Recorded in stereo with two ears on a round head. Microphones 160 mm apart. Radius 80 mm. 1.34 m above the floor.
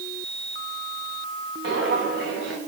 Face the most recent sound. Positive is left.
turn(degrees=-65)  # may be behind; listen again after turning